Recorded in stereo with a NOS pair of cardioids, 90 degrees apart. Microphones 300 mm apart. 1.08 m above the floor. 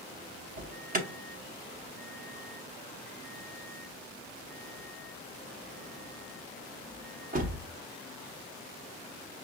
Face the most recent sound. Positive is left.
turn(degrees=-30)